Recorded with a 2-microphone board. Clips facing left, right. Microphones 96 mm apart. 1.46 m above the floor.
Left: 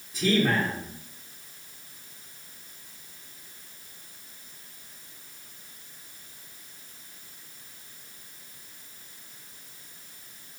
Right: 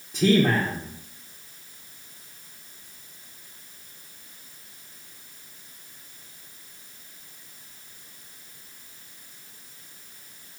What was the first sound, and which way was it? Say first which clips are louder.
A man speaking: right 4 dB; 75° right (ahead or behind).